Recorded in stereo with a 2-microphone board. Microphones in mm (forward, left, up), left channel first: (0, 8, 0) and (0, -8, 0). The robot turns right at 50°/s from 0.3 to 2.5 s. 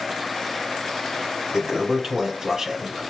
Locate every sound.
1.5 s a toilet flushing: 115° right, 1.4 m; by 3.1 s 65° right, 1.4 m